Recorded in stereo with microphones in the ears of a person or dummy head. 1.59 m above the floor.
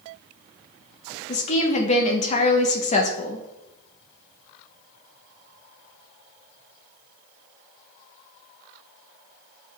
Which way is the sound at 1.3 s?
40° left (ahead or behind).